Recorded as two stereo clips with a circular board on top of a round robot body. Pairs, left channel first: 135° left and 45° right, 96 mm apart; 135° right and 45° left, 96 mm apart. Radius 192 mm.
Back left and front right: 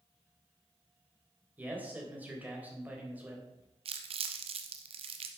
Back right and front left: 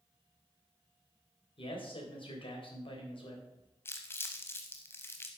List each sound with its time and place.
1.6 s a man speaking: 115° right, 3.5 m
3.9 s crumpling: 70° right, 0.6 m